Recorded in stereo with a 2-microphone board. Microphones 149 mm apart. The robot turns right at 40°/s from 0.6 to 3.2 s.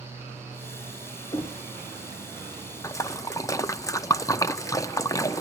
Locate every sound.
1.3 s knocking: 25° left (ahead or behind), 1.9 m; by 1.6 s 35° left (ahead or behind), 1.9 m
2.8 s a splash: 20° left (ahead or behind), 0.6 m